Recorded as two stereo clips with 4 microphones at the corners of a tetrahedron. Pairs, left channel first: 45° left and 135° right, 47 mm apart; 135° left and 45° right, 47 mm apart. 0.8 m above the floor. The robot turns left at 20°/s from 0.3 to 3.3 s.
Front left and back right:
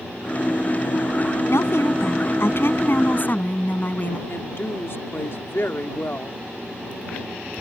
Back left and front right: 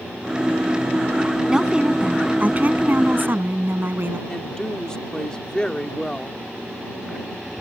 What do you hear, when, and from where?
1.5 s a woman speaking: 35° left; by 4.2 s straight ahead
4.3 s a woman speaking: 65° left